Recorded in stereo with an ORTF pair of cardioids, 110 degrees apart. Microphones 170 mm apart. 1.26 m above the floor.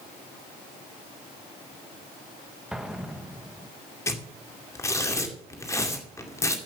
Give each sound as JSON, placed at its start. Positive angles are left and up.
{"t": 2.7, "sound": "an explosion", "azimuth_deg": -5, "distance_m": 1.4}
{"t": 4.1, "sound": "tearing paper", "azimuth_deg": 15, "distance_m": 2.0}